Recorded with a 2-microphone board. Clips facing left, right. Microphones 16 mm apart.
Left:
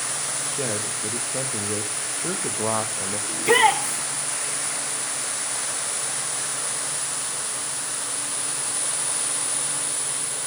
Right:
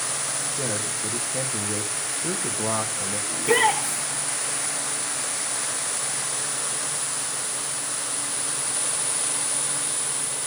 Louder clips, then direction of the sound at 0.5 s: Left 1 dB; 30° left (ahead or behind).